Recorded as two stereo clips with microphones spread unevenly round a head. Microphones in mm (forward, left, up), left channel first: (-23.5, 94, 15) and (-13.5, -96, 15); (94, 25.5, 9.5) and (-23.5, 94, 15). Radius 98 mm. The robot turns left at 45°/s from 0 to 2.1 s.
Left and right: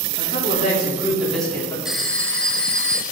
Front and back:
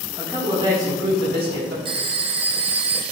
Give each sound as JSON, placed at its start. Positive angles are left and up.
{"t": 0.2, "sound": "a man speaking", "azimuth_deg": -125, "distance_m": 3.0}
{"t": 1.9, "sound": "a phone ringing", "azimuth_deg": -175, "distance_m": 0.8}